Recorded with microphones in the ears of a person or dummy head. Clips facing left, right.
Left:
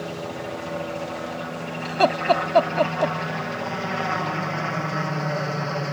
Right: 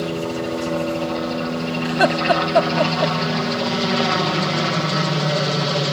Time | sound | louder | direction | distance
0.0 | a helicopter | right 8 dB | 55° right (ahead or behind) | ?
1.9 | laughter | right 1 dB | 5° right (ahead or behind) | ?